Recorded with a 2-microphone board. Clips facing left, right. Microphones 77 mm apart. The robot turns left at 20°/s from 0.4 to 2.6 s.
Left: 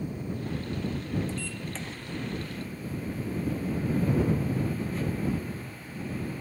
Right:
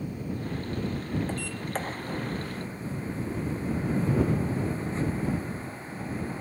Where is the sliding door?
55° right (ahead or behind); by 6.4 s 30° right (ahead or behind).